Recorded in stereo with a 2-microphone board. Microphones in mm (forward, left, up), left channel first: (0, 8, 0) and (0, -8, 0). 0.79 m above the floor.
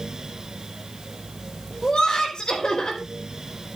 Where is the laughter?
70° left (ahead or behind), 4 m.